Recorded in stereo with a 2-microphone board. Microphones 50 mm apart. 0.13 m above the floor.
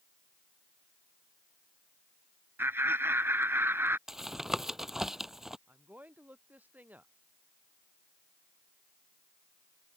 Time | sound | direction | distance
2.6 | laughter | 45° right (ahead or behind) | ?
4.1 | tapping | 10° right (ahead or behind) | ?
5.7 | a woman speaking | 30° right (ahead or behind) | ?